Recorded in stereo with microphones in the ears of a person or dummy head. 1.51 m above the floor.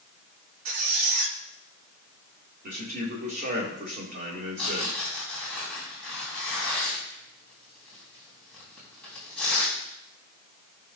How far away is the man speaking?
About 2.5 m.